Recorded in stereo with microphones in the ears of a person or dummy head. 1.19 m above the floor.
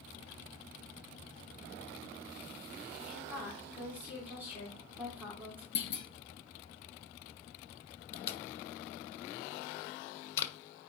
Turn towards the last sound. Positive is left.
turn(degrees=30)  # may be behind; listen again after turning